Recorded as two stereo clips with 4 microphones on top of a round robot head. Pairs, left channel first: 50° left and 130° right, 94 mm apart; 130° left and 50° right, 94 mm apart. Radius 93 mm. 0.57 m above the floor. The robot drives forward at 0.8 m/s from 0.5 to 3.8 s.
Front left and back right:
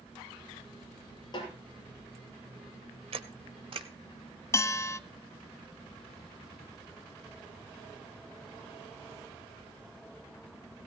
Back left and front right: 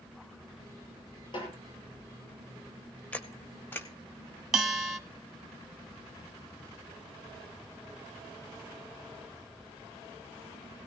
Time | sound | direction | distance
1.3 | a snare drum | 90° left | 8.5 m
3.1 | a camera shutter | 150° right | 1.2 m
4.5 | a bell | 40° left | 1.2 m